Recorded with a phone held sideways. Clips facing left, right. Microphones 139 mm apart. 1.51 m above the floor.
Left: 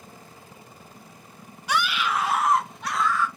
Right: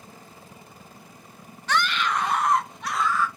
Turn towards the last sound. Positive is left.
turn(degrees=0)  # may be behind; listen again after turning